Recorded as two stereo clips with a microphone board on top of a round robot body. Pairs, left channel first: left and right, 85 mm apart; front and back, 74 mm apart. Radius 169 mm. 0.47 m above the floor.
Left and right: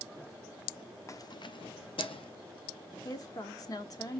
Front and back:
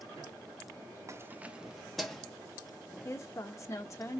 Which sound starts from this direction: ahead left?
A woman speaking, at 3.0 s.